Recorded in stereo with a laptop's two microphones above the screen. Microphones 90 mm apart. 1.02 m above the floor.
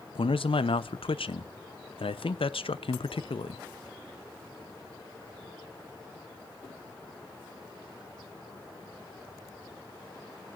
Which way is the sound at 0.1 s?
75° left (ahead or behind).